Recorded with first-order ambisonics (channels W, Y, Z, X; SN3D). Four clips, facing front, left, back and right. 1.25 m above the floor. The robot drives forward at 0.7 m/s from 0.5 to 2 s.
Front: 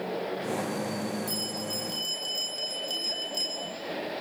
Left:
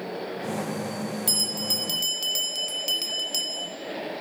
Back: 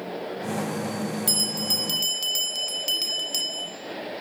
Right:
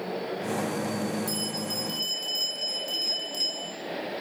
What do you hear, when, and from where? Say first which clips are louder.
1.3 s a bell: left 5 dB, back 8 dB; 140° left, 4.5 m; by 3.7 s 145° left, 5 m